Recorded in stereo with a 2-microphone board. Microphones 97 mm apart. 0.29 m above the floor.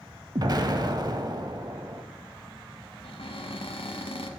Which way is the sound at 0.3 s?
45° right (ahead or behind).